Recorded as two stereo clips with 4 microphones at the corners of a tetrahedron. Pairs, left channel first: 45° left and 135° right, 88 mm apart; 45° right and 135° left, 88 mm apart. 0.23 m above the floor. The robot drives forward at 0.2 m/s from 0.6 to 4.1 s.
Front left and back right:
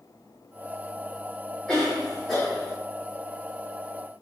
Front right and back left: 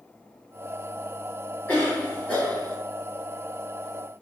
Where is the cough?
30° right, 1.6 m; by 2.8 s 45° right, 1.5 m.